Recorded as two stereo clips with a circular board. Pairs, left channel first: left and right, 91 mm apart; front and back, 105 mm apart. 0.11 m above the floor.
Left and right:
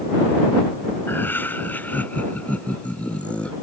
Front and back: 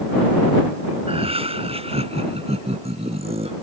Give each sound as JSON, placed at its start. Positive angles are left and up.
{"t": 1.1, "sound": "laughter", "azimuth_deg": 155}